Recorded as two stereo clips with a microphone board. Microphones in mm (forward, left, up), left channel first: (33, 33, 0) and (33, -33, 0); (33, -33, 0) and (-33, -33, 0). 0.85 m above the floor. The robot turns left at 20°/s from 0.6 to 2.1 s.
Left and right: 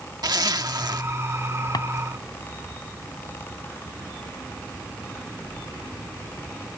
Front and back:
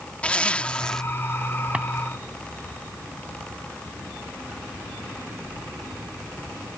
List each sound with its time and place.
0.2 s a zipper: 75° right; by 1.0 s 80° right
1.7 s a drawer: 105° left